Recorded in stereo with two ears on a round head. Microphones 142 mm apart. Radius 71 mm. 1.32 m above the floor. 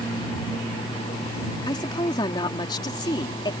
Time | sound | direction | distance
1.7 | a woman speaking | 30° left (ahead or behind) | ?